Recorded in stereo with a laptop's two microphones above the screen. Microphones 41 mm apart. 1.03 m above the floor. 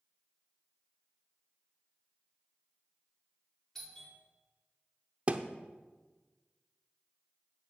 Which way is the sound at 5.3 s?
30° right (ahead or behind).